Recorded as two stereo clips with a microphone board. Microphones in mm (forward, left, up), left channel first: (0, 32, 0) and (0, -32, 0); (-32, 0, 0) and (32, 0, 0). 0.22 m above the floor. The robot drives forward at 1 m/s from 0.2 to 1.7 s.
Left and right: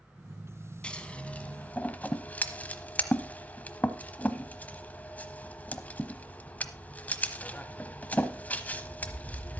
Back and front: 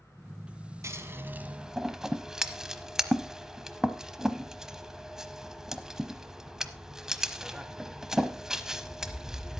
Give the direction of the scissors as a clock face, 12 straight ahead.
11 o'clock.